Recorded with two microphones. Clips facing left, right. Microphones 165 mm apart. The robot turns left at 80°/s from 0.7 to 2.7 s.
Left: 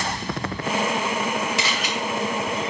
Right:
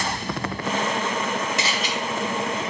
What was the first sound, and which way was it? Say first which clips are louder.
A camera shutter: even; 50° right (ahead or behind).